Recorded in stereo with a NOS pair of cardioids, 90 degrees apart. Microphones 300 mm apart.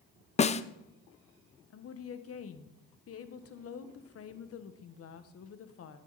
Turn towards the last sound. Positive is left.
turn(degrees=55)